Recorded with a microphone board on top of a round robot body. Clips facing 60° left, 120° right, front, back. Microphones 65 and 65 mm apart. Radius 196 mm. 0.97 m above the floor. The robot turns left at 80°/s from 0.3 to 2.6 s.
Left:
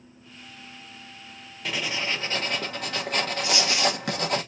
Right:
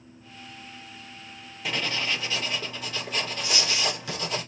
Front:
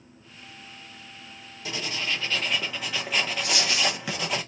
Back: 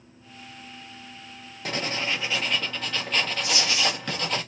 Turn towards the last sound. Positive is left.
turn(degrees=-15)